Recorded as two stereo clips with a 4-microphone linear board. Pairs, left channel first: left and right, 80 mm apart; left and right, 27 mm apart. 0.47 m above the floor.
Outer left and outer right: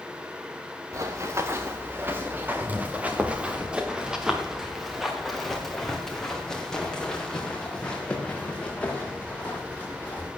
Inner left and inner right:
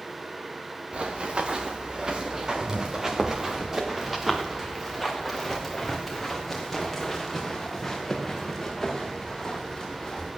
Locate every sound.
0.9 s running footsteps: 45° right (ahead or behind), 2.5 m; by 10.3 s 20° left (ahead or behind), 5 m